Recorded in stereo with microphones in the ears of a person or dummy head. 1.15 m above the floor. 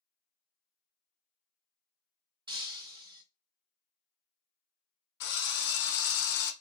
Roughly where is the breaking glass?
Right.